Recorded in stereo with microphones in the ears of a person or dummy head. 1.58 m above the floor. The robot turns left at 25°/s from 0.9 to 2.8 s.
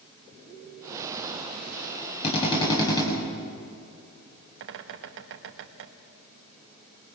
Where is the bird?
65° right (ahead or behind), 1.5 m.